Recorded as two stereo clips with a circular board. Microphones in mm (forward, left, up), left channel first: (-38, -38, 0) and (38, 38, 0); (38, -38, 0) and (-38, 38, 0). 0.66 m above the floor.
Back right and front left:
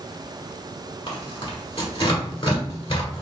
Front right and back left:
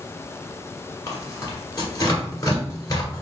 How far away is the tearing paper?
About 1.2 m.